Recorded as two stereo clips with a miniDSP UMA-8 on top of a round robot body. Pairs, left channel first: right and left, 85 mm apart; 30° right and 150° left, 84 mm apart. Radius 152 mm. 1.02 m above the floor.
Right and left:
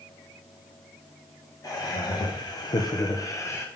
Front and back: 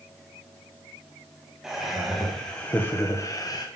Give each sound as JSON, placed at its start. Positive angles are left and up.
{"t": 1.6, "sound": "laughter", "azimuth_deg": -125, "distance_m": 1.8}